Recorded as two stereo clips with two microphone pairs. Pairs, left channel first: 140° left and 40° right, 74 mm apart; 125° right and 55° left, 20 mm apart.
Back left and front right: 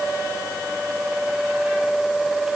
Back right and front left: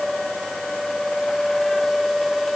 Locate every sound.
Only background noise.